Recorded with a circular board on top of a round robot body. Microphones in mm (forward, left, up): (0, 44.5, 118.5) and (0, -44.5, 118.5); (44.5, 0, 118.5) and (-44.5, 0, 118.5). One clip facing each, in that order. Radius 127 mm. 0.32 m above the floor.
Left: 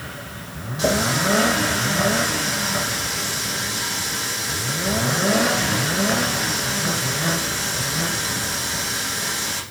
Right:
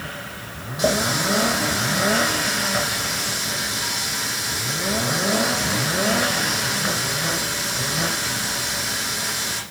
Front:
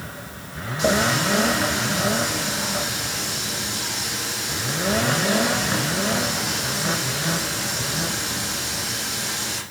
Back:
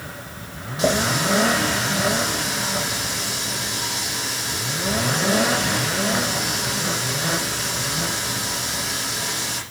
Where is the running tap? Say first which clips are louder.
Left 1 dB, even; 170° right, 10 m.